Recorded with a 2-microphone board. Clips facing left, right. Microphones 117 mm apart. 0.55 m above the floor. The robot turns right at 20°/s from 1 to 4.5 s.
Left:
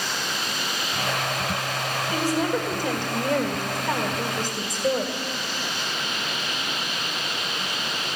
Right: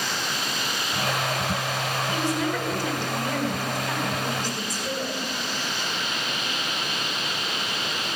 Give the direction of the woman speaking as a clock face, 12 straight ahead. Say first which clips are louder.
Left 4 dB; 10 o'clock.